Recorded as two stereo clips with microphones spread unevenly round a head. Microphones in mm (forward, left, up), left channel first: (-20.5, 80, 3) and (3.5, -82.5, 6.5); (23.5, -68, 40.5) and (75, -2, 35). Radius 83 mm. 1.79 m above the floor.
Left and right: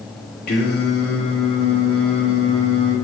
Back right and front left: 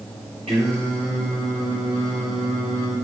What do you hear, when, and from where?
0.5 s singing: 110° left, 2.5 m